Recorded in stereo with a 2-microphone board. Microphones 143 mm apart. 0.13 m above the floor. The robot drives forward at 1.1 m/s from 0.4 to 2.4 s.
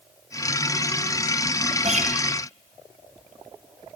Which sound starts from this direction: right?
A guitar, at 1.8 s.